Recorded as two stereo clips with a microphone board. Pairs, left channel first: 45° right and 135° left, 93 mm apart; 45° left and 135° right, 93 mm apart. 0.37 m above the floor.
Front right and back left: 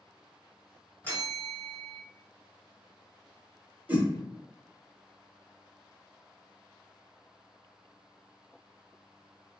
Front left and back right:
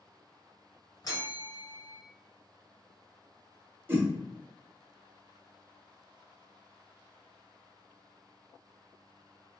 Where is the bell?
15° left, 1.3 m.